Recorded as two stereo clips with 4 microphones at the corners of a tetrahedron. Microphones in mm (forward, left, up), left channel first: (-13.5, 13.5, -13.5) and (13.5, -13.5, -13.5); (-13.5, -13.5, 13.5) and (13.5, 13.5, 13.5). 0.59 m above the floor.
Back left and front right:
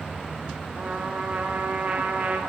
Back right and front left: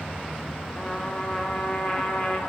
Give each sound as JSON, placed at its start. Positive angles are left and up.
{"t": 0.8, "sound": "a trumpet", "azimuth_deg": -75, "distance_m": 0.8}